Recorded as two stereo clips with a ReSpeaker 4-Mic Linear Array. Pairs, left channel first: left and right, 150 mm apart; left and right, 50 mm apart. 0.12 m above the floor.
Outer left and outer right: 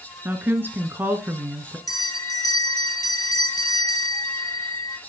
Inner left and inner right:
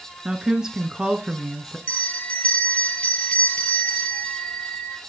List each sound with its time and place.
0.2 s a woman speaking: 15° right (ahead or behind), 1.3 m
1.9 s a bell: 25° left (ahead or behind), 2 m